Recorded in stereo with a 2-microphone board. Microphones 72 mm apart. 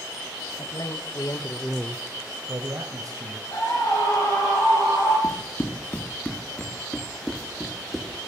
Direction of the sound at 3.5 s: 60° left (ahead or behind).